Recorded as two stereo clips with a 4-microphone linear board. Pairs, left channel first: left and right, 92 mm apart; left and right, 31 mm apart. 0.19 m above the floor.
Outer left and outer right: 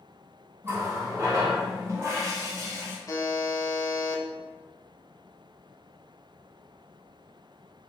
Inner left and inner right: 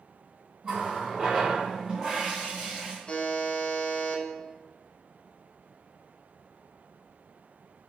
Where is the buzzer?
40° left (ahead or behind), 0.6 m.